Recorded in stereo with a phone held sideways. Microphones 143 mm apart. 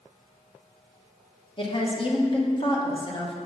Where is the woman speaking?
35° left (ahead or behind), 1.3 m.